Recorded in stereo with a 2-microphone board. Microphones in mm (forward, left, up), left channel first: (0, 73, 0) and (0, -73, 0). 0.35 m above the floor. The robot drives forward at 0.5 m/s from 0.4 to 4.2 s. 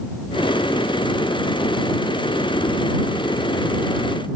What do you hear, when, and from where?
Only background noise.